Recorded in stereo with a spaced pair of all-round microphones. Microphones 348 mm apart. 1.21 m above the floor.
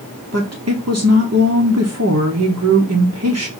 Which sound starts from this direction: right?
A woman speaking, at 0.3 s.